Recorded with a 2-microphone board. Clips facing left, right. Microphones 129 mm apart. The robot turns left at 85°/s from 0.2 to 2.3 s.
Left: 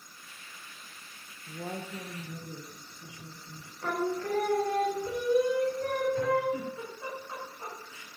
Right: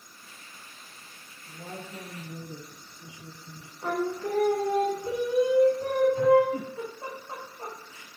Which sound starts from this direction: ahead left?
A woman speaking, at 1.5 s.